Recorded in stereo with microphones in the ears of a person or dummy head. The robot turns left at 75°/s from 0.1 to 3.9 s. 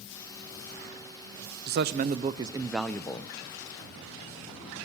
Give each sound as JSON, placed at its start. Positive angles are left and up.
{"t": 1.7, "sound": "a man speaking", "azimuth_deg": -100, "distance_m": 0.6}